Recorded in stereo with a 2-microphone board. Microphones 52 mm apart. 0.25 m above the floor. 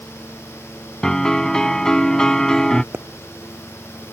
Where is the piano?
10° left (ahead or behind).